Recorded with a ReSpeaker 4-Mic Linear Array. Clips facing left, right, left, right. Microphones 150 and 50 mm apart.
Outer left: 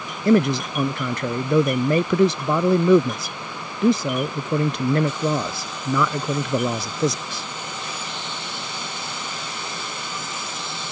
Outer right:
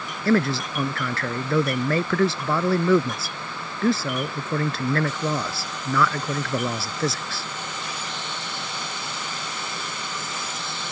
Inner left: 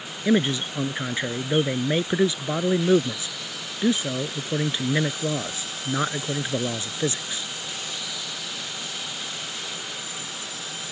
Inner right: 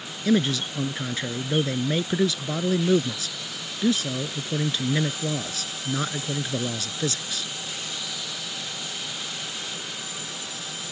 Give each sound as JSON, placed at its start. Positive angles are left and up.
{"t": 0.2, "sound": "a man speaking", "side_deg": 20}